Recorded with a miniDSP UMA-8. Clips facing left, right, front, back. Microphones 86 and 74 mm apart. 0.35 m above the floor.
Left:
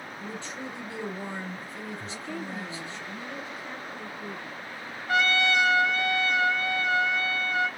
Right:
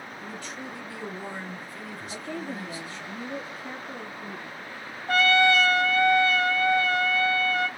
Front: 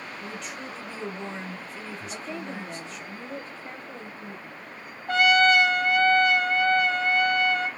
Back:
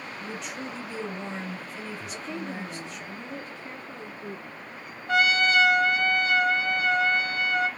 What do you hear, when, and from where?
0.2 s a man speaking: 95° left, 1.6 m
2.1 s a woman speaking: 50° right, 1.8 m
5.1 s a trumpet: 45° right, 2.5 m